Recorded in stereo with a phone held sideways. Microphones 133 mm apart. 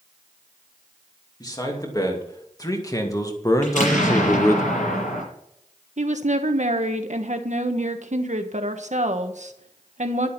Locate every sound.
1.4 s a man speaking: 30° left (ahead or behind), 3 m; by 4.6 s 20° left (ahead or behind), 1.0 m
3.6 s an explosion: 75° left (ahead or behind), 6 m
6.0 s a woman speaking: 65° right (ahead or behind), 1.3 m